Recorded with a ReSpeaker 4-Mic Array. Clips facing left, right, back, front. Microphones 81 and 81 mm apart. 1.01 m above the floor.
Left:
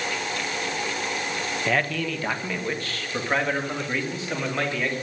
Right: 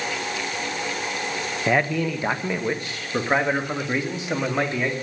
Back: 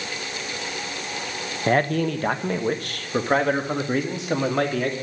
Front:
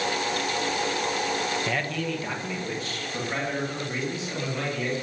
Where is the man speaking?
160° right, 0.9 m.